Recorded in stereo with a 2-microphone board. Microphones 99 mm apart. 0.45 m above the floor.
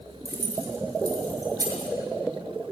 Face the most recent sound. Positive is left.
turn(degrees=-40)  # may be behind; listen again after turning